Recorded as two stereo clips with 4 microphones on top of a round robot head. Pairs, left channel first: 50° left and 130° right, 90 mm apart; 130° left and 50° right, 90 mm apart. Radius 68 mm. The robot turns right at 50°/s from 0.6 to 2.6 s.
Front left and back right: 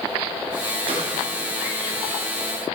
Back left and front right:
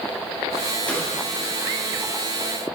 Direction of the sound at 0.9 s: 160° right.